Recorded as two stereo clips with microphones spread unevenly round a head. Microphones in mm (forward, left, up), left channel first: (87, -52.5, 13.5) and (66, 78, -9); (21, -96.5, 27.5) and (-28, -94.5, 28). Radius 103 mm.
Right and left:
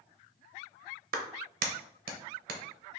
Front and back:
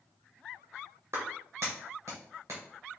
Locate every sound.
1.1 s a clap: 100° left, 0.8 m